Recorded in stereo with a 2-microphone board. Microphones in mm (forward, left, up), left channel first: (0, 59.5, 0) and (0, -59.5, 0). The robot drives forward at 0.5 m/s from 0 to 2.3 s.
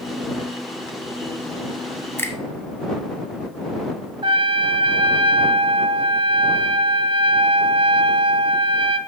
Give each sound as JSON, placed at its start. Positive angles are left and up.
{"t": 2.2, "sound": "a finger snap", "side_deg": 20, "distance_m": 0.9}
{"t": 4.2, "sound": "a trumpet", "side_deg": -40, "distance_m": 0.6}